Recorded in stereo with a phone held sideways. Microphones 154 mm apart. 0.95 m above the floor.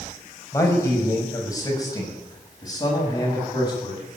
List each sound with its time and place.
0.5 s a man speaking: 20° left (ahead or behind), 5 m; by 4.0 s 25° left (ahead or behind), 7.5 m